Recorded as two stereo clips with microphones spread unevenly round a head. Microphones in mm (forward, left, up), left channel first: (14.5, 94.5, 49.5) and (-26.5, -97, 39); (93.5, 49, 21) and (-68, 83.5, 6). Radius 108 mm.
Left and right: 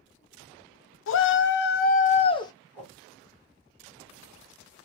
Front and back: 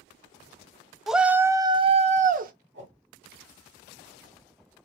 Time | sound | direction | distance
1.1 | a shout | 80° left | 0.9 m
2.7 | a whoosh | 155° right | 2.5 m